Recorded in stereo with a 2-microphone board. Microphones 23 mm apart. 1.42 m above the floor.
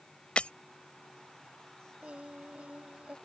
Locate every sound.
0.4 s breaking glass: 55° left (ahead or behind)
2.0 s singing: 70° right (ahead or behind)